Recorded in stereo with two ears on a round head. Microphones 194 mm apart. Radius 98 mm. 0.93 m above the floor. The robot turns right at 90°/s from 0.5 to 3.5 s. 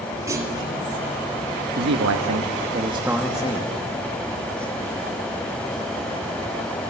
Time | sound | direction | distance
0.3 | a clunk | 15° right (ahead or behind) | 3 m
1.8 | a man speaking | 130° right | 1.3 m